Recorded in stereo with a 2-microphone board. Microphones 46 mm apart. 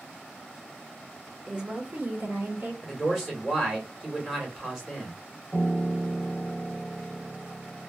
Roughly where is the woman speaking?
Centre.